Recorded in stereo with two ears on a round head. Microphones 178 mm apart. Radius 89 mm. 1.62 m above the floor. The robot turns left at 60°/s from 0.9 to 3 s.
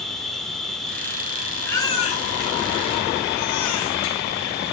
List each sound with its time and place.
0.0 s an insect: straight behind, 4 m; by 4.8 s 50° left, 4 m
1.7 s a baby crying: 10° left (ahead or behind), 8 m; by 4.2 s 85° left, 8 m